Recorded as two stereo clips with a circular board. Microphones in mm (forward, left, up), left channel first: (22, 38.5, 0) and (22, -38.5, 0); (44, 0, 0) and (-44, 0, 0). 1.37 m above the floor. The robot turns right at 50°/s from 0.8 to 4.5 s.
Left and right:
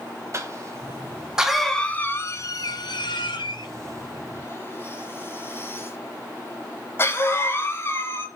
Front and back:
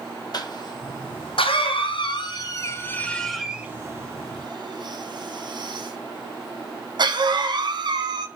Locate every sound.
0.3 s a cough: 40° right, 0.6 m; by 8.3 s 145° left, 0.6 m